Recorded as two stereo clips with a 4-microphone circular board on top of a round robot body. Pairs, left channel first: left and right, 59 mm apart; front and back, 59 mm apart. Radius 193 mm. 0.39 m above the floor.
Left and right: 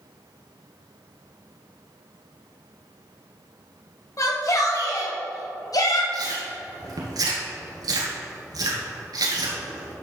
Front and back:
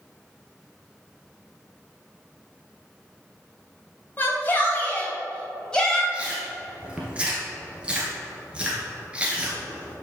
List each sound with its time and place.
4.2 s a shout: 60° left, 3 m; by 6.0 s 80° left, 3 m
6.1 s chewing: 105° right, 1.6 m